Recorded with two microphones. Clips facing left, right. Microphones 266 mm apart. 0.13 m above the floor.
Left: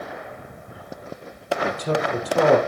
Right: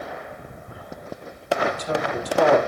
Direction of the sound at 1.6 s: 65° left (ahead or behind).